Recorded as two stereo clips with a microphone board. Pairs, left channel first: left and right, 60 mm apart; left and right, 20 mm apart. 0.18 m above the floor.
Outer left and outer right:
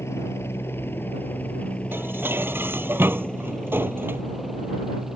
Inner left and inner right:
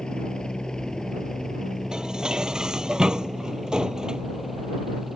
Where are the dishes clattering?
35° right (ahead or behind).